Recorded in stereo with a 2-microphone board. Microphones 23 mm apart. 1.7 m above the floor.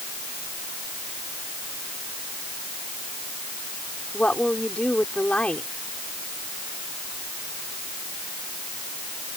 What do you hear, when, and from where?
4.1 s a woman speaking: 60° left (ahead or behind)